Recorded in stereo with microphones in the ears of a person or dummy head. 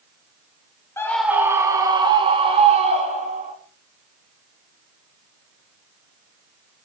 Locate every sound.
1.0 s a scream: 10° left (ahead or behind), 1.9 m; by 3.5 s 35° right (ahead or behind), 4.5 m